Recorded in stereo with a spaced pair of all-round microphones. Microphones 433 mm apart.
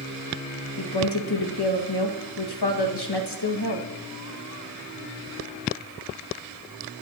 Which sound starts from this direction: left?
A woman speaking, at 0.8 s.